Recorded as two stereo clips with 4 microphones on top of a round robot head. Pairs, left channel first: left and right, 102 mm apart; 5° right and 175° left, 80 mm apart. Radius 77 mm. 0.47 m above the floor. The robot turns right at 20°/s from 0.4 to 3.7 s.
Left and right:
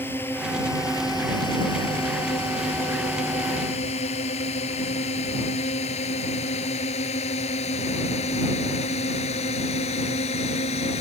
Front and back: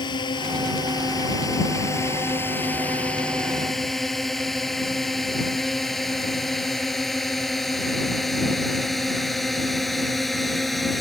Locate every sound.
0.0 s a drone: 15° left; by 11.0 s 85° left